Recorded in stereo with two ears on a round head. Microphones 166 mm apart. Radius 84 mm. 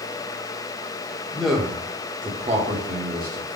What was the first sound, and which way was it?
A man speaking, 5° left (ahead or behind).